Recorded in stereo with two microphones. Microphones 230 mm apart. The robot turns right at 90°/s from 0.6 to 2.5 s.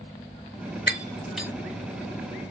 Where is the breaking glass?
45° left (ahead or behind), 1.2 m; by 1.5 s 10° right (ahead or behind), 1.2 m.